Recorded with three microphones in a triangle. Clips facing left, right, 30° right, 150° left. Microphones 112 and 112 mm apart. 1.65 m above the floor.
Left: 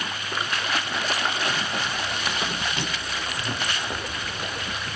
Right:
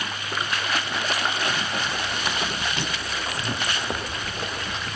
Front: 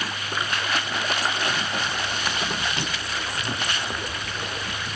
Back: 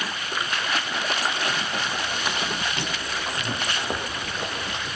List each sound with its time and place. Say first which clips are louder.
1.9 s running footsteps: right 1 dB, even; 135° right, 2.5 m; by 4.9 s 145° right, 4 m